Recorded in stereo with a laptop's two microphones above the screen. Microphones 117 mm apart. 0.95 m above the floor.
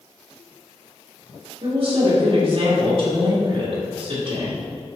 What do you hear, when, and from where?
1.6 s a woman speaking: 55° right (ahead or behind), 2 m